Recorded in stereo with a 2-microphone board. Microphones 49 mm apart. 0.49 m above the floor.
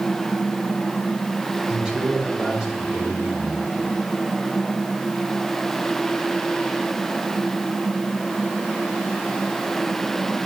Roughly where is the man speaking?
Centre.